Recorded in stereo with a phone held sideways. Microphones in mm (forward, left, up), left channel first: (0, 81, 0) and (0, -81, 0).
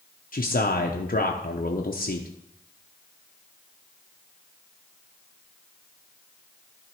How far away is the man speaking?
About 0.7 m.